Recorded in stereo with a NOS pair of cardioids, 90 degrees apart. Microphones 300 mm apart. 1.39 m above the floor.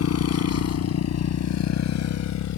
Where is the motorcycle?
55° left; by 2.6 s 70° left.